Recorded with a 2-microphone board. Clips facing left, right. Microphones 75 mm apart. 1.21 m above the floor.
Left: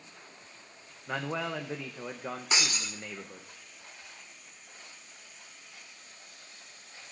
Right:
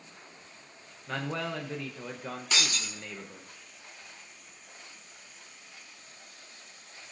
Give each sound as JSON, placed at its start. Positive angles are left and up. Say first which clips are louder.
{"t": 1.1, "sound": "a man speaking", "louder": "even", "side_deg": 10, "distance_m": 0.7}
{"t": 2.5, "sound": "breaking glass", "louder": "even", "side_deg": 25, "distance_m": 1.8}